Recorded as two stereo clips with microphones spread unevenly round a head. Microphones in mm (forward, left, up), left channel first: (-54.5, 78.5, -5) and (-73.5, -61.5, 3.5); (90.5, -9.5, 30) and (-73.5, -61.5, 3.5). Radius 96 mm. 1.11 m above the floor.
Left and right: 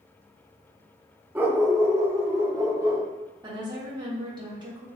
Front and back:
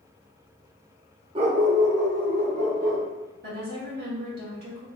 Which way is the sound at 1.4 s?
140° right.